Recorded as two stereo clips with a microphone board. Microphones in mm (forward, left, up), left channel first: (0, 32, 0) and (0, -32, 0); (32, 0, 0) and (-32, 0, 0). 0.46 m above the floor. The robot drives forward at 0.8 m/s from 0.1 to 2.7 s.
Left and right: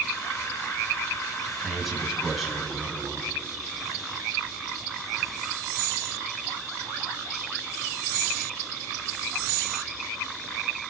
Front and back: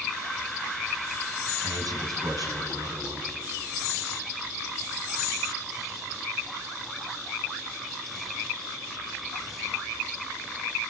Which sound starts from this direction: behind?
A man speaking, at 1.6 s.